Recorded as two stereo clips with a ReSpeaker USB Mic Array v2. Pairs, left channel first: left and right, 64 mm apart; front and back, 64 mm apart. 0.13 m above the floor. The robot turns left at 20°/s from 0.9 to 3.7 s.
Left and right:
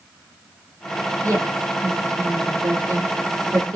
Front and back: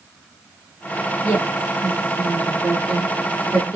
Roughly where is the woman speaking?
Ahead right.